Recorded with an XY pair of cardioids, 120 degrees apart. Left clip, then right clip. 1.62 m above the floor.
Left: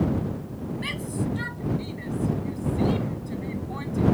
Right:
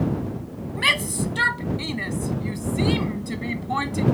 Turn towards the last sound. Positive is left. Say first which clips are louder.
# right 12 dB
turn(degrees=-65)